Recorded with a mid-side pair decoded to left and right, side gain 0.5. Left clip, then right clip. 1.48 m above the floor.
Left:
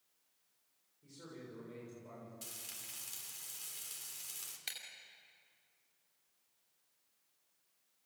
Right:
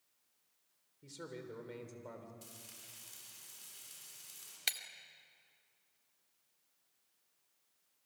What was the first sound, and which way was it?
A man speaking, 55° right.